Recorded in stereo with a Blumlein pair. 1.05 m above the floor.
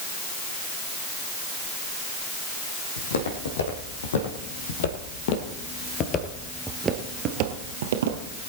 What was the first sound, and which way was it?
Footsteps, 70° left.